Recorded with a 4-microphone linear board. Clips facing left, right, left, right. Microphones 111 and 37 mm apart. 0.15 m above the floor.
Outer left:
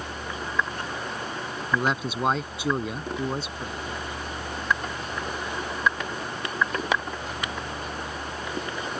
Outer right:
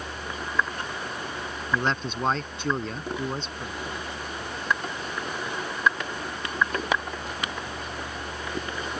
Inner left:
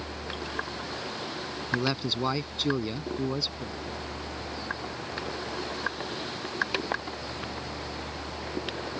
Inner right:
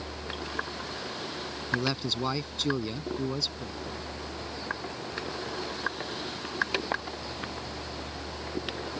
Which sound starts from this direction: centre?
A man speaking, at 1.7 s.